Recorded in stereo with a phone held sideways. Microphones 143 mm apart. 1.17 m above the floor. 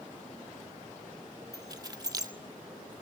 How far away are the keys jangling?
About 1.8 m.